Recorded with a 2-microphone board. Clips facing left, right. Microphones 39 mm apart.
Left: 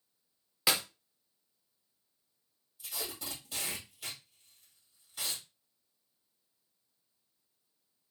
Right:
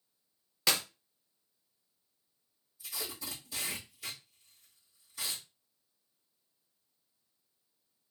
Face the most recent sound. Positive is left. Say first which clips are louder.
# even
turn(degrees=65)  # may be behind; listen again after turning